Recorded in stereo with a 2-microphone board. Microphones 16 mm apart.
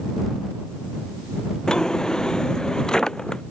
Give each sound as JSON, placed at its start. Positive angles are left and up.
{"t": 1.7, "sound": "a drawer", "side_deg": 60}